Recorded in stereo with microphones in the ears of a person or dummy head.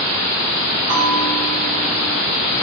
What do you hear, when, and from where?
0.9 s a bell: 40° right (ahead or behind), 1.4 m